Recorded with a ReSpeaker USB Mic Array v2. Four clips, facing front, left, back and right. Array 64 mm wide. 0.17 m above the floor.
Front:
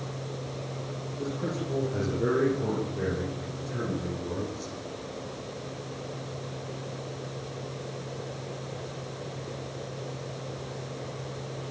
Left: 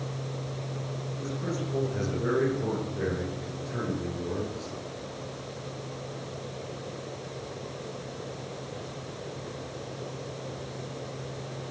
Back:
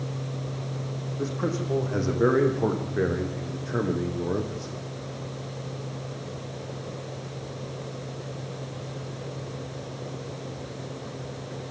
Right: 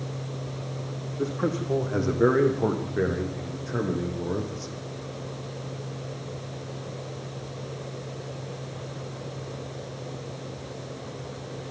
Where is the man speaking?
115° right, 7 m; by 4.8 s 160° right, 6.5 m.